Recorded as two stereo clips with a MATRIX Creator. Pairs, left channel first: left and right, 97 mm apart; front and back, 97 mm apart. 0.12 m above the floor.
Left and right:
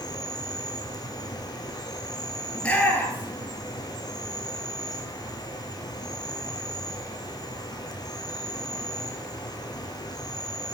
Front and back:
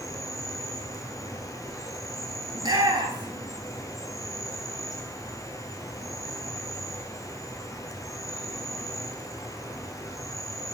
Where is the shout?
160° left, 2.5 m.